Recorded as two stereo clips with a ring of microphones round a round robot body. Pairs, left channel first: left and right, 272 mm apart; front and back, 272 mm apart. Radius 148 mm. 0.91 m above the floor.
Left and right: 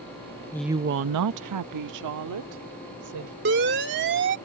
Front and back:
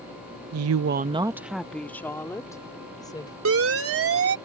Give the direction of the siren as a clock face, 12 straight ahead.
5 o'clock.